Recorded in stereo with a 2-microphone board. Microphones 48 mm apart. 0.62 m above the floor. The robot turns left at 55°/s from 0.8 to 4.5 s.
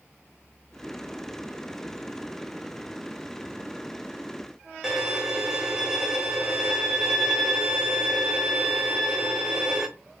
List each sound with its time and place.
4.8 s a violin: 10° right (ahead or behind), 0.5 m